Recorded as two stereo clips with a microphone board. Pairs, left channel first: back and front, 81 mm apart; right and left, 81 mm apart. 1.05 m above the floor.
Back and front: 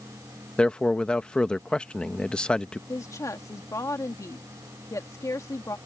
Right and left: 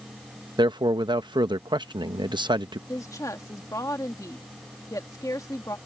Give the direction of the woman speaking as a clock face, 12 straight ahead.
4 o'clock.